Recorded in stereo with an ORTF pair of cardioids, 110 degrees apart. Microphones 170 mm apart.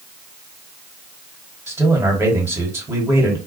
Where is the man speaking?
15° right, 1.3 m.